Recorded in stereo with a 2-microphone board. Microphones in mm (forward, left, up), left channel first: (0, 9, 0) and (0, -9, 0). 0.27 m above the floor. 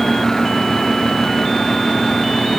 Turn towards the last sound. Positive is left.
No sound to turn to.